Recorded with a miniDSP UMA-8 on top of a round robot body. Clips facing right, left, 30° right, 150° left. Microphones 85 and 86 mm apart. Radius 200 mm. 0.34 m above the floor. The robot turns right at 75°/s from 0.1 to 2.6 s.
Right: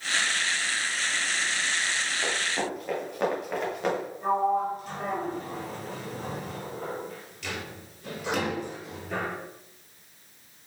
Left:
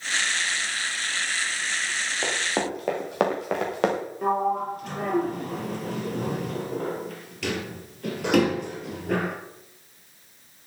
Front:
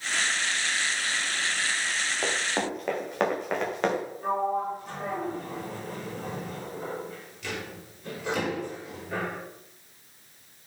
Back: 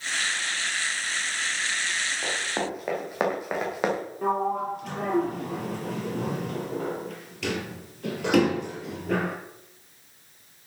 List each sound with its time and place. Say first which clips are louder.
2.2 s running footsteps: left 5 dB, front 2 dB; 30° left, 5 m; by 4.0 s 70° left, 6.5 m
4.2 s a sliding door: even, back 2 dB; 120° left, 3 m